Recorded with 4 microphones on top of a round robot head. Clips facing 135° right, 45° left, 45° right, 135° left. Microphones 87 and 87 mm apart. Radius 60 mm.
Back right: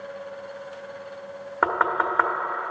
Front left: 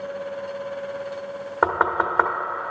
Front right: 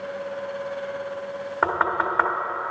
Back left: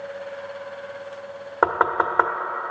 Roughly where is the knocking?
Left.